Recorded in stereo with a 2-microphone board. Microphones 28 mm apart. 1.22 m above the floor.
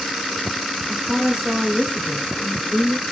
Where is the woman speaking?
10° right (ahead or behind), 0.7 m.